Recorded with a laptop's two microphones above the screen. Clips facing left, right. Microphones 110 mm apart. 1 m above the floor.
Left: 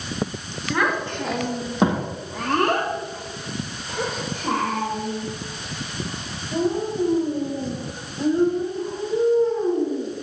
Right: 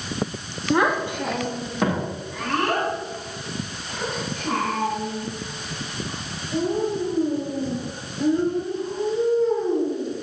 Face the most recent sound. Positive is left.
turn(degrees=80)